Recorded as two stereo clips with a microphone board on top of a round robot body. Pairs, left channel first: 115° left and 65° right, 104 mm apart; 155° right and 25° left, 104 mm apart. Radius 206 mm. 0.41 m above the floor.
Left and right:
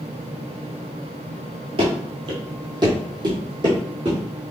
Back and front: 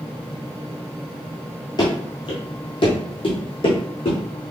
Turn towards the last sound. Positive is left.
turn(degrees=-120)